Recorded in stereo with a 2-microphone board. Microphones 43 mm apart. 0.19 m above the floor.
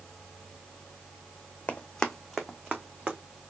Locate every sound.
1.7 s running footsteps: 35° left (ahead or behind), 0.6 m; by 3.2 s 30° right (ahead or behind), 1.2 m